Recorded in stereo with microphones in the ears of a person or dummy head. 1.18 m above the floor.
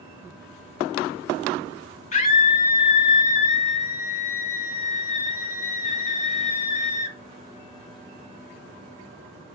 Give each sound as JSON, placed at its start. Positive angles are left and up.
{"t": 2.1, "sound": "a scream", "side_deg": 35, "distance_m": 1.0}